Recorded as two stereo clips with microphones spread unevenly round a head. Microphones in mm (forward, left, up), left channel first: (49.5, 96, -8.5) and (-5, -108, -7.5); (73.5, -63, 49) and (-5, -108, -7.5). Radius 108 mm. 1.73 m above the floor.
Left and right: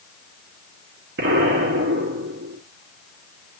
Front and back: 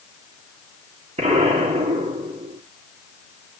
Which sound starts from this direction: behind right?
An explosion, at 1.2 s.